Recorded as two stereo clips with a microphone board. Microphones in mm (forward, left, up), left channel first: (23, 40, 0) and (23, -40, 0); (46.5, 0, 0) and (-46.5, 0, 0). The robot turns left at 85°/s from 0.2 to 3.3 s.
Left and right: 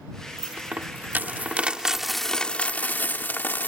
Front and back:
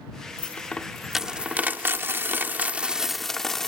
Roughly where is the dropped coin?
Ahead right.